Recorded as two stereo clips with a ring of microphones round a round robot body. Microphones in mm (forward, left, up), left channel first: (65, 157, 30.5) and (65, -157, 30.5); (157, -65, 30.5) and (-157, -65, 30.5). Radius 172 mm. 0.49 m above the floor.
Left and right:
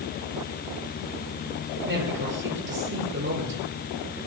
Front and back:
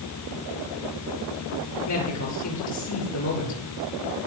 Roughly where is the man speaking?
Ahead right.